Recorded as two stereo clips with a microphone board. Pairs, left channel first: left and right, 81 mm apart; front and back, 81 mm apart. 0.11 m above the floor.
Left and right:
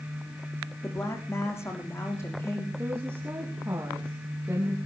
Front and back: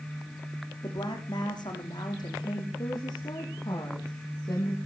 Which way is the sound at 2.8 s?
30° right.